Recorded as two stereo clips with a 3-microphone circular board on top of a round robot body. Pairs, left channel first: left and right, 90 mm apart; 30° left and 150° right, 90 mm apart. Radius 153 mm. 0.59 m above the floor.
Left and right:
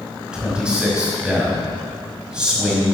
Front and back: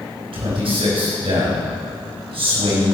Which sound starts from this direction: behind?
A man speaking, at 0.3 s.